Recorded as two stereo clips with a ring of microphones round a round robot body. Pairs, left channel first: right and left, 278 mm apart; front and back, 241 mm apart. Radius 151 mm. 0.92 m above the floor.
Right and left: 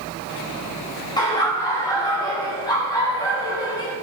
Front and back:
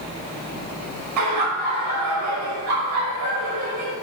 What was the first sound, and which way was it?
Laughter, 165° right.